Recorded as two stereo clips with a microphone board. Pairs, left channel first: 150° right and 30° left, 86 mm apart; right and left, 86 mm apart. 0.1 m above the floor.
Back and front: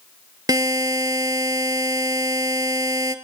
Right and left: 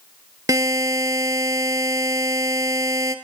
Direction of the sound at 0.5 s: 60° left.